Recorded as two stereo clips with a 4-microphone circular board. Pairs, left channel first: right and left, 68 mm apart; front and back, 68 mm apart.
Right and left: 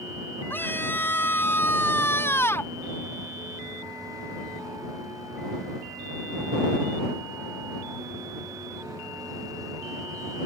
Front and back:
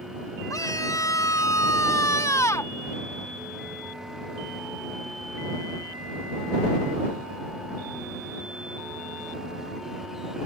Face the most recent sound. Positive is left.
turn(degrees=-40)